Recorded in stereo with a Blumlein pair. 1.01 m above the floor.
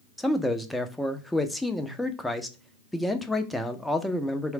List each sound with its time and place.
0.2 s a man speaking: straight ahead, 0.6 m